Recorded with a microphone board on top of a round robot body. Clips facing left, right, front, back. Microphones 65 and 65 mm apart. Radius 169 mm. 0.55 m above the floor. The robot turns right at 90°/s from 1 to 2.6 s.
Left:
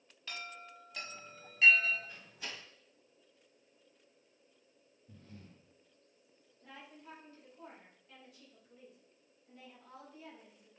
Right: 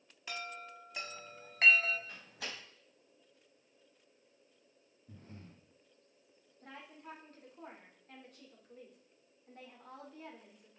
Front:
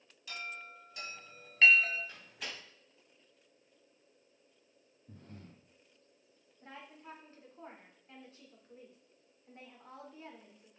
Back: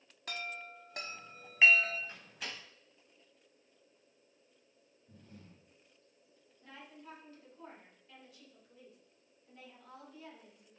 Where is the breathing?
30° right, 1.4 m.